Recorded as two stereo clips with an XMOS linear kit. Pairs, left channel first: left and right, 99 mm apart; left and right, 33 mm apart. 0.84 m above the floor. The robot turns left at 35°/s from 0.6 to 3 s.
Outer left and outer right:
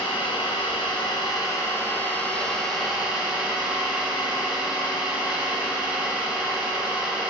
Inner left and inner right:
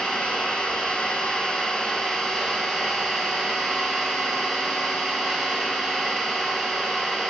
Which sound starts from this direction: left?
An engine running, at 0.0 s.